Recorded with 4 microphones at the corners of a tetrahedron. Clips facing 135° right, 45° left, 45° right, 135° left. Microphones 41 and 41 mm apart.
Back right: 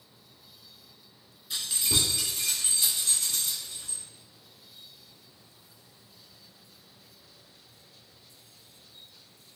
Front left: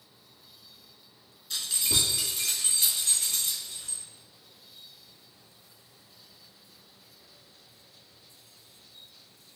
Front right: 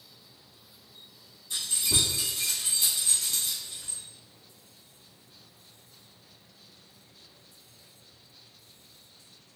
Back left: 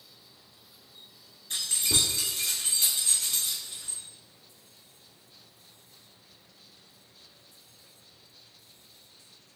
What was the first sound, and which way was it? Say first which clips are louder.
Keys jangling: even, even; 145° left.